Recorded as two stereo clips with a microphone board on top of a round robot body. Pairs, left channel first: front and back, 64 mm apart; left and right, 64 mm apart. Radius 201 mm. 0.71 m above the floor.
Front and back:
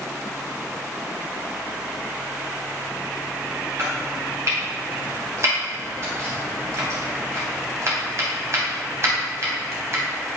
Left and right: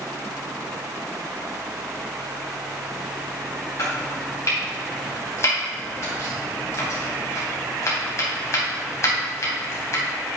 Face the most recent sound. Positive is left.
turn(degrees=135)